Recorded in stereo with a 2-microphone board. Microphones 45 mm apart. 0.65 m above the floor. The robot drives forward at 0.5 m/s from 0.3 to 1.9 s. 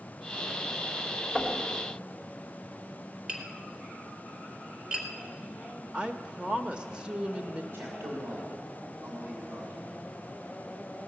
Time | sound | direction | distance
1.4 | knocking | 20° right (ahead or behind) | 2 m
3.3 | tapping | 15° right (ahead or behind) | 2.5 m
5.9 | a woman speaking | 25° right (ahead or behind) | 0.7 m
7.7 | a man speaking | 65° right (ahead or behind) | 2.5 m